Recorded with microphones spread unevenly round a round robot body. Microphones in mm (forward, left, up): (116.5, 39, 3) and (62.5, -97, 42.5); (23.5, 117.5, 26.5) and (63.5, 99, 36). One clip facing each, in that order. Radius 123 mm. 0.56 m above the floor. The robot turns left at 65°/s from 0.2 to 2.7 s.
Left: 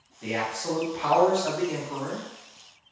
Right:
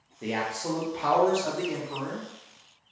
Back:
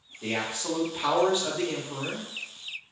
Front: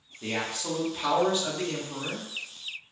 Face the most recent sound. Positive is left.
turn(degrees=85)